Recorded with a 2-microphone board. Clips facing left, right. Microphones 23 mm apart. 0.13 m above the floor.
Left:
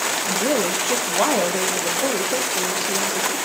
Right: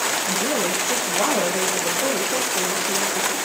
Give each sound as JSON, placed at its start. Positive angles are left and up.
{"t": 0.3, "sound": "a woman speaking", "side_deg": 35, "distance_m": 2.5}